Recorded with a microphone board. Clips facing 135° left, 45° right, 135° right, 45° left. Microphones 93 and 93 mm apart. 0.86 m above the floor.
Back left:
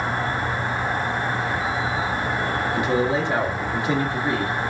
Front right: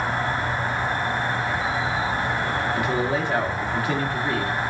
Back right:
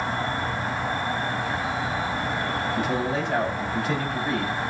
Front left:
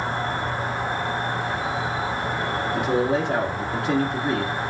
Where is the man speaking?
70° left, 1.6 m.